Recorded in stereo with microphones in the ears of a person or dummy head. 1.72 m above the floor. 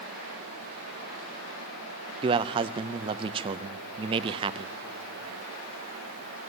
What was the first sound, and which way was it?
A man speaking, 30° right (ahead or behind).